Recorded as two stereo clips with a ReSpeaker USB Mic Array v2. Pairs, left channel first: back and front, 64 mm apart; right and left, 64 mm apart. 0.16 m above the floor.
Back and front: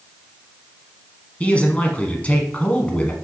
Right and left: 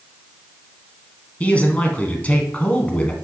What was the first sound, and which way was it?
A man speaking, 135° right.